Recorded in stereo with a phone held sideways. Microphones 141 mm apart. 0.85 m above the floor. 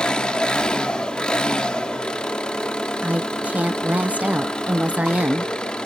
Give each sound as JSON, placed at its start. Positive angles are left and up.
{"t": 0.0, "sound": "an engine running", "side_deg": 5, "distance_m": 1.1}
{"t": 3.0, "sound": "a woman speaking", "side_deg": -10, "distance_m": 0.6}